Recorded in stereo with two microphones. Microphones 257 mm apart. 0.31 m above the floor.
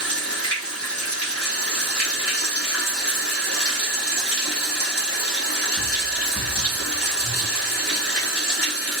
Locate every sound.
0.0 s running water: 65° left (ahead or behind), 0.9 m